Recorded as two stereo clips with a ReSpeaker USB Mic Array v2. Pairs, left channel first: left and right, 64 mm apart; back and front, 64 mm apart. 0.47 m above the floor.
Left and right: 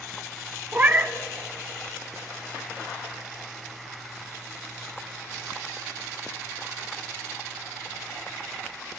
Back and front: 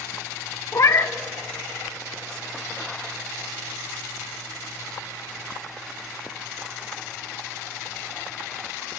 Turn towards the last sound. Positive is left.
turn(degrees=-150)